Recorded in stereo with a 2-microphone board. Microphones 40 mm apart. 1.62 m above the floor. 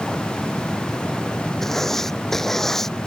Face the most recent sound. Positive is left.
turn(degrees=5)  # may be behind; listen again after turning